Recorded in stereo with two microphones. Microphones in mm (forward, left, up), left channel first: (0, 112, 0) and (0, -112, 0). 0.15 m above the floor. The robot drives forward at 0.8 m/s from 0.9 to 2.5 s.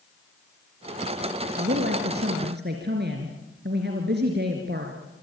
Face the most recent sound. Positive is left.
turn(degrees=-50)  # may be behind; listen again after turning